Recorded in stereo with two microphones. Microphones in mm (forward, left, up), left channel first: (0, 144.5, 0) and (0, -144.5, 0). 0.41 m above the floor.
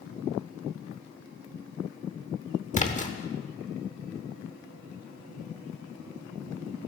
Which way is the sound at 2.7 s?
25° left (ahead or behind).